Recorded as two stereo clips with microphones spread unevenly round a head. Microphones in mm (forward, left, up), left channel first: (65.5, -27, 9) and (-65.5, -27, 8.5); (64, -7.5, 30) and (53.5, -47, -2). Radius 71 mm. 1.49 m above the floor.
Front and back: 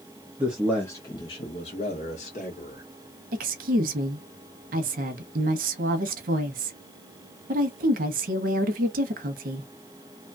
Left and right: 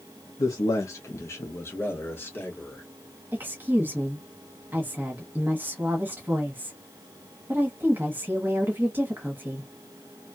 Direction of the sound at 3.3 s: 170° right.